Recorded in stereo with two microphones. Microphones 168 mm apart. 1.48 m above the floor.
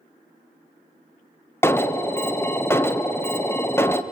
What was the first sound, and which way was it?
An alarm, 15° left (ahead or behind).